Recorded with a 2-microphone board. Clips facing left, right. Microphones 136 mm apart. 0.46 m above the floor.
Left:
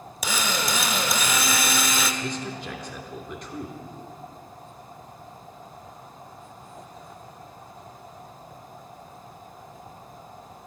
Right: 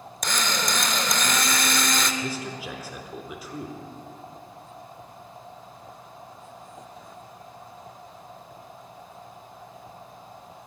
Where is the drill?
5° left (ahead or behind), 0.8 m.